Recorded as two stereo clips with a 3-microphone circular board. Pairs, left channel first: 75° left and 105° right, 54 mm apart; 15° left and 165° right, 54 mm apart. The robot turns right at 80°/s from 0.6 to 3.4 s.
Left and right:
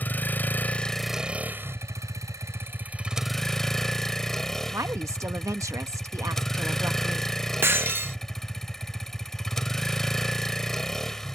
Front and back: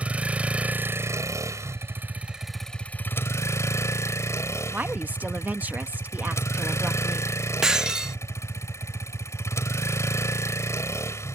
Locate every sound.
0.0 s a vehicle: 130° left; by 11.4 s 5° right
4.7 s a woman speaking: 110° right
7.6 s breaking glass: 90° right